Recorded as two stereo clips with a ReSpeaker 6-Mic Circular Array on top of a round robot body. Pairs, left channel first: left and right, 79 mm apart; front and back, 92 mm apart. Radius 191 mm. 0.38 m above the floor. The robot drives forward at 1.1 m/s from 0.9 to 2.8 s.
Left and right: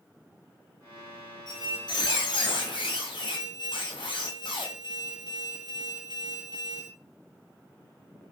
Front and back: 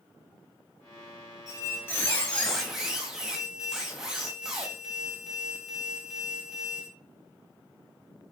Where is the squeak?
55° left, 2.5 m; by 6.9 s 95° left, 2.0 m.